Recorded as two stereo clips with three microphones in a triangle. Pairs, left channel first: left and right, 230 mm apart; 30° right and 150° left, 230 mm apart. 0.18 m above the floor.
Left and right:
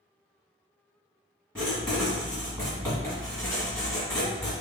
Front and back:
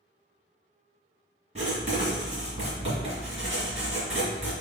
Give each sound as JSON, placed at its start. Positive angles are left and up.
{"t": 1.6, "sound": "writing", "azimuth_deg": 170, "distance_m": 1.9}